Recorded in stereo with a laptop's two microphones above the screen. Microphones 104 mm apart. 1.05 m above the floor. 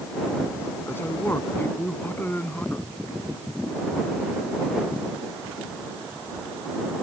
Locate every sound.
0.9 s a man speaking: 20° left (ahead or behind); by 2.9 s 15° left (ahead or behind)